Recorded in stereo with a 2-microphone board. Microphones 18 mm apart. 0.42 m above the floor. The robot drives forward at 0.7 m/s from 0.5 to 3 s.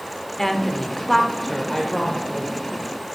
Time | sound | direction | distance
0.4 | a woman speaking | 20° left (ahead or behind) | 0.8 m